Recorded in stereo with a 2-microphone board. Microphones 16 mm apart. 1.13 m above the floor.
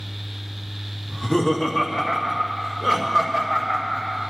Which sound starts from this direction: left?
Laughter, at 1.1 s.